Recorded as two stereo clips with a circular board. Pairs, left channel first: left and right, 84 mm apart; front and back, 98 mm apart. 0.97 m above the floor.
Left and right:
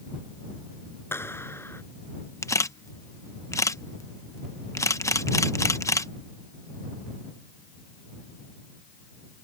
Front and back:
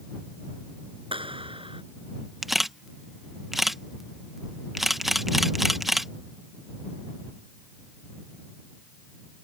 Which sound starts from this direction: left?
A camera shutter, at 2.4 s.